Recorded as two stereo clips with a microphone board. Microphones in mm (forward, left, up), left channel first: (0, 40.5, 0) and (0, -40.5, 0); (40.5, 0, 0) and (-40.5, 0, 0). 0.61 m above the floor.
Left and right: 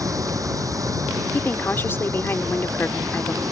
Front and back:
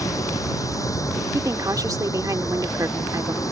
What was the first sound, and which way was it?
Running water, 45° right.